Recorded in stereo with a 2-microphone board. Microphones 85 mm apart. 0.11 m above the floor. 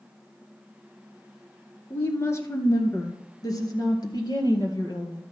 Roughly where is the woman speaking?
Left.